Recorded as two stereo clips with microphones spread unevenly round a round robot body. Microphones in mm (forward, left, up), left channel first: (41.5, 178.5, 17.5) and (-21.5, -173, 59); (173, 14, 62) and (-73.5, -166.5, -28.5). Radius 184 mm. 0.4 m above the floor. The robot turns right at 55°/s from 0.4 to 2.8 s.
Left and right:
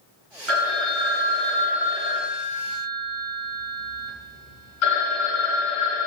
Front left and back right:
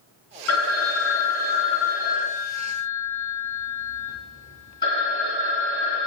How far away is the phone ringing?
About 1.4 m.